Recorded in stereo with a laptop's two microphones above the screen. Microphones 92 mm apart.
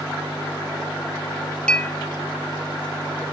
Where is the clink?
15° left (ahead or behind), 0.7 m.